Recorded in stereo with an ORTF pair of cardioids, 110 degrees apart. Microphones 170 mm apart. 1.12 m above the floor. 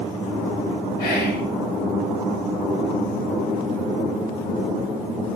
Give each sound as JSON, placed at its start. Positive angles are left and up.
{"t": 1.0, "sound": "whispering", "azimuth_deg": 60, "distance_m": 1.0}